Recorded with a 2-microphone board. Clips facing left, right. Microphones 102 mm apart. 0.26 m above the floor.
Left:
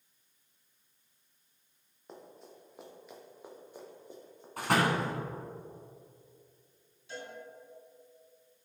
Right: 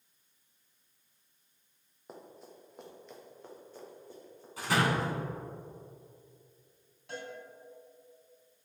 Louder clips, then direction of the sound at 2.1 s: Right 1 dB; 5° right (ahead or behind).